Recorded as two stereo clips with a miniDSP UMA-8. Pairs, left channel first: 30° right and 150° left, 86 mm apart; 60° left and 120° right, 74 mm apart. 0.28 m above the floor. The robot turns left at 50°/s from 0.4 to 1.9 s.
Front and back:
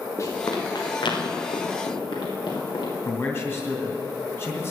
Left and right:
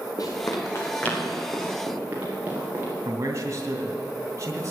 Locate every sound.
0.2 s running footsteps: 25° left, 4.5 m; by 2.9 s 55° right, 7.5 m
3.0 s a man speaking: 85° right, 2.5 m